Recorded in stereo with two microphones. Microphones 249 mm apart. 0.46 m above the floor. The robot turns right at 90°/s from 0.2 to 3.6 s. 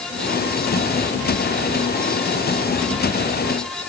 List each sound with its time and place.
Only background noise.